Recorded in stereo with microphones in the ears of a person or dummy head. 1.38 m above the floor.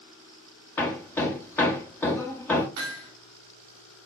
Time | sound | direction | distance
0.8 | hammering | 10° left (ahead or behind) | 0.8 m
2.8 | hammering | 55° right (ahead or behind) | 1.7 m